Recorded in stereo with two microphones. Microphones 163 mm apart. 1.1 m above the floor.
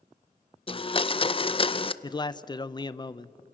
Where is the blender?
35° left (ahead or behind), 0.5 m.